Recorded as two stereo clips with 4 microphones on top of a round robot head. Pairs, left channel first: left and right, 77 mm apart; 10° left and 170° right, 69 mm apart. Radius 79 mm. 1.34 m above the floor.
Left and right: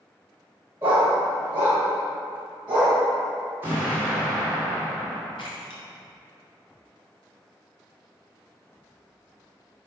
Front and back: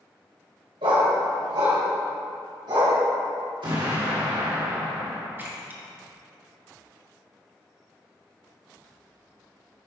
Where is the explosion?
160° right, 2 m.